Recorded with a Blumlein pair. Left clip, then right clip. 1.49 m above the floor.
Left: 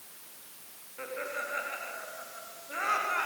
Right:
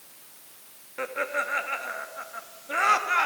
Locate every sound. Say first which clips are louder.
1.0 s laughter: right 8 dB; 25° right, 2.5 m